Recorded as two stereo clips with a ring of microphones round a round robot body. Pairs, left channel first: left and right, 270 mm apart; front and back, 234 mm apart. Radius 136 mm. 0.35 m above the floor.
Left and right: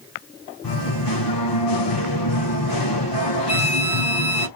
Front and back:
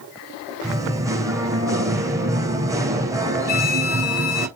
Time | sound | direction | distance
0.6 | singing | 105° left | 3.5 m
3.5 | a violin | 10° right | 1.1 m